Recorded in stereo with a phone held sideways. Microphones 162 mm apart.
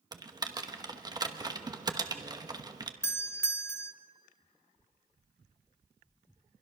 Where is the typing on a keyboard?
25° right (ahead or behind), 1.1 m.